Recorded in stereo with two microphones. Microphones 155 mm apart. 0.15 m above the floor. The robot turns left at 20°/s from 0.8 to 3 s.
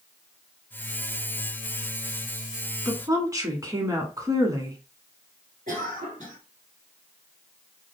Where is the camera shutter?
I don't hear a camera shutter.